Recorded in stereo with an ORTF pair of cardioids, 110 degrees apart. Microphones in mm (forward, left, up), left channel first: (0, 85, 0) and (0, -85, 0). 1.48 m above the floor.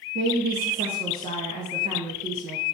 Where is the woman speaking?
65° right, 1.4 m.